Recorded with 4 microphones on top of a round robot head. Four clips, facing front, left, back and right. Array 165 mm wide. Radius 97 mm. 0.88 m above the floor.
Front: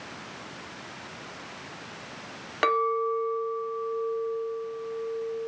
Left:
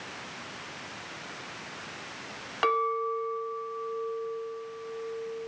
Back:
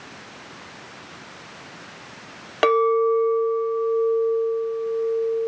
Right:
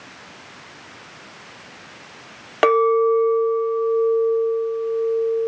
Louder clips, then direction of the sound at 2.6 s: Right 12 dB, back 7 dB; 110° right.